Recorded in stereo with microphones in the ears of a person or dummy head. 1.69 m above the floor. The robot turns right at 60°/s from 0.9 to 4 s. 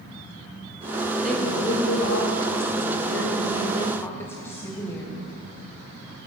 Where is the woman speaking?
Straight ahead, 0.9 m; by 5.2 s 165° left, 0.9 m.